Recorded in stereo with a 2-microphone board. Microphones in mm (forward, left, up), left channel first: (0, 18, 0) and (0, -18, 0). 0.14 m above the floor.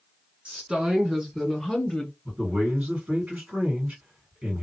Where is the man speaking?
45° right (ahead or behind), 2.5 m.